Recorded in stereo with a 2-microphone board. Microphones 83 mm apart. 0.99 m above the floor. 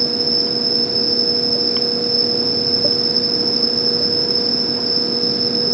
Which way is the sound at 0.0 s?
50° right (ahead or behind).